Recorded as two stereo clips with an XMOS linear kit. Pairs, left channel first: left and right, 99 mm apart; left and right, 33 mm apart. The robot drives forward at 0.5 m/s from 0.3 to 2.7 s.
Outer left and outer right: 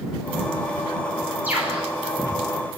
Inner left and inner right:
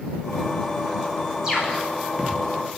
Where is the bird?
15° right (ahead or behind), 9 m.